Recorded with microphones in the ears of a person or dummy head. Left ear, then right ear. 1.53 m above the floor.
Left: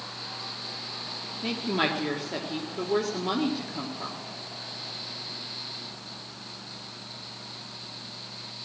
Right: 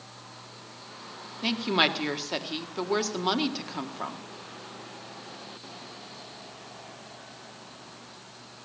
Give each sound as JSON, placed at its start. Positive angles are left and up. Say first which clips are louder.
{"t": 1.4, "sound": "a woman speaking", "louder": "right 3 dB", "side_deg": -45, "distance_m": 1.7}